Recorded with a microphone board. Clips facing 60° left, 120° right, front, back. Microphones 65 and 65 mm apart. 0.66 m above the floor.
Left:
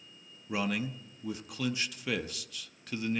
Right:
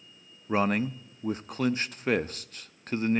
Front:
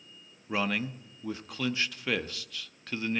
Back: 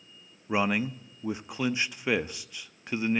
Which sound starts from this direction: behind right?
A man speaking, at 0.5 s.